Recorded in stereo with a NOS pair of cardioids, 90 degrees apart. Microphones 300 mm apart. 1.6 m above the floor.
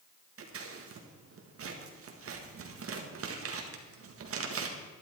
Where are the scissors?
50° right, 1.8 m.